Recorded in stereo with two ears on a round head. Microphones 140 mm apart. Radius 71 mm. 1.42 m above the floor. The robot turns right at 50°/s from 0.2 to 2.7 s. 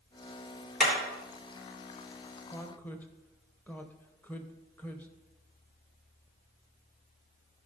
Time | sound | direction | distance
0.8 | hammering | centre (ahead or behind) | 4.5 m
2.5 | a woman speaking | 20° left (ahead or behind) | 1.1 m